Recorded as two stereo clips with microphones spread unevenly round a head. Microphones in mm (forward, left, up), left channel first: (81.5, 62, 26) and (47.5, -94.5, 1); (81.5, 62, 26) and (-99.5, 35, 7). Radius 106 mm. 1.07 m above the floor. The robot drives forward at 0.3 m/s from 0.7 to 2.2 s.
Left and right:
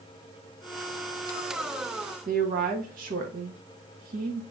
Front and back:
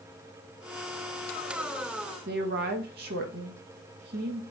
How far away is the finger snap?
No finger snap in this recording.